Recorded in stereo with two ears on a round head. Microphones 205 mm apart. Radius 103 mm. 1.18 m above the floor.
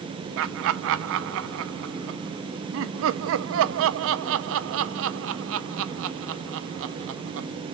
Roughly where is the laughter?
Right.